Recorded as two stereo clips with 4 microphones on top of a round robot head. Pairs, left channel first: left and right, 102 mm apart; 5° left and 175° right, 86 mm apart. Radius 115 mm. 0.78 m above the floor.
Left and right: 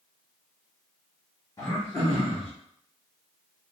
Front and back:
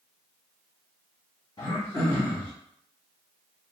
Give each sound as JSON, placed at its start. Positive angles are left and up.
{"t": 1.6, "sound": "throat clearing", "azimuth_deg": 30, "distance_m": 1.3}